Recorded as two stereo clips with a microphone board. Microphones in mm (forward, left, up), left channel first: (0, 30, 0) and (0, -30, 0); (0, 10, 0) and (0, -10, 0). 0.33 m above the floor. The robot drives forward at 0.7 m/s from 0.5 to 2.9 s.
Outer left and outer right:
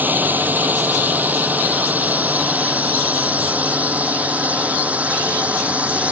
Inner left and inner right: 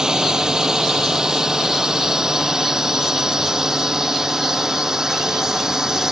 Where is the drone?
30° right (ahead or behind); by 6.1 s 25° right (ahead or behind).